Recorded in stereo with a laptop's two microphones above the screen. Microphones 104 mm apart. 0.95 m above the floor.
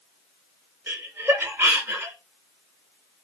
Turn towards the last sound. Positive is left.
turn(degrees=-20)  # may be behind; listen again after turning